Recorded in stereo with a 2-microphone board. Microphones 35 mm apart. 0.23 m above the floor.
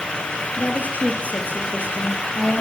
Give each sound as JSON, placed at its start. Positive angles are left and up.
{"t": 0.6, "sound": "a woman speaking", "side_deg": 55, "distance_m": 5.5}